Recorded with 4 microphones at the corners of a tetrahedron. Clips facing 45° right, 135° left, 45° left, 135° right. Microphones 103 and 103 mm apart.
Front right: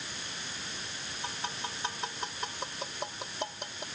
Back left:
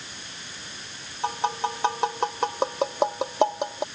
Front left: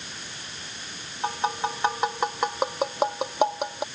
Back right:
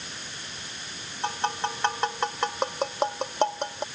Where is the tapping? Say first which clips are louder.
Back left 14 dB, front left 2 dB; 125° left.